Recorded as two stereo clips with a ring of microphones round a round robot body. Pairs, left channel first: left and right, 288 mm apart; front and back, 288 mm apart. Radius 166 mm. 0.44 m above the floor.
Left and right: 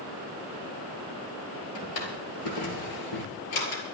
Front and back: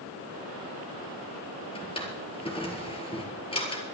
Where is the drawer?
70° left, 3 m.